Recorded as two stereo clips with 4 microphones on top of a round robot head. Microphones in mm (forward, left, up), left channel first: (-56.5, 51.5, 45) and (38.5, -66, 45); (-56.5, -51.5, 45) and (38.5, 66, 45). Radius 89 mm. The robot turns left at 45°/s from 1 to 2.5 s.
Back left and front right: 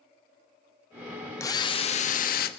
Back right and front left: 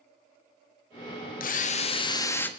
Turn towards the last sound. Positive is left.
turn(degrees=150)